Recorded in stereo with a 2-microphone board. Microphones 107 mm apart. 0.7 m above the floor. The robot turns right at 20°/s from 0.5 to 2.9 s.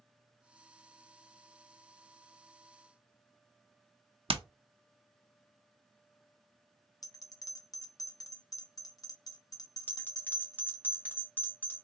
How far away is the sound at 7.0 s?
About 0.6 m.